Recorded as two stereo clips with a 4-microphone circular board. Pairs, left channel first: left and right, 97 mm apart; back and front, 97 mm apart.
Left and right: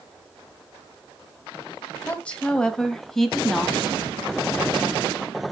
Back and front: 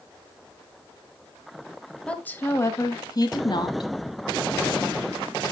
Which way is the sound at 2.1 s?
130° left.